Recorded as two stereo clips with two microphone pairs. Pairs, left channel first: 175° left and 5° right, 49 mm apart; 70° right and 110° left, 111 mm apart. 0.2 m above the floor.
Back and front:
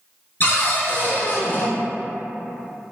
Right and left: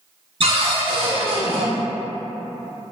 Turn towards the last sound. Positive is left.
turn(degrees=130)